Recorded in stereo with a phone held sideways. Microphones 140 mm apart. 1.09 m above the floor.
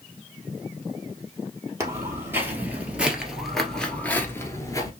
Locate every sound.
1.8 s footsteps: 20° right (ahead or behind), 1.7 m; by 4.9 s 25° left (ahead or behind), 1.1 m